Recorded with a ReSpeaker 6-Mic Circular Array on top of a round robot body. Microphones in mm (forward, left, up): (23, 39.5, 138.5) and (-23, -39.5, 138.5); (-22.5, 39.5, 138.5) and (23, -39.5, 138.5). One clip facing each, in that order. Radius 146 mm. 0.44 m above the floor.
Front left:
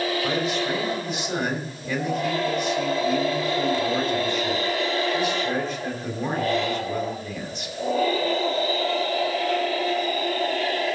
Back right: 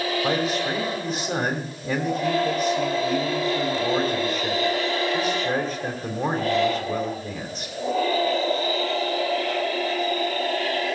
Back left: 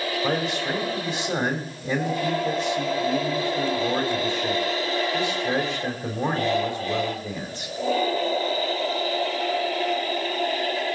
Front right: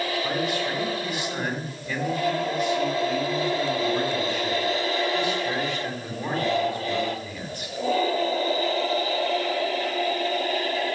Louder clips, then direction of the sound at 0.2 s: Back right 1 dB, back left 1 dB; 175° left.